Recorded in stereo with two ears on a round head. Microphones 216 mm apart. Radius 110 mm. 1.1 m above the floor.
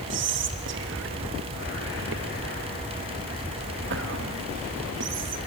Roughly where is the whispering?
Right.